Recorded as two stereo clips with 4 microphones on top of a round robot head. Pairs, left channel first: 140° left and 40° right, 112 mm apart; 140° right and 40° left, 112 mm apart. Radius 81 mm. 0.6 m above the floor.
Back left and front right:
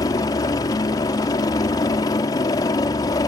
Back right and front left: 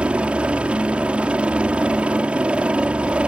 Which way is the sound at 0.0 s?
115° left.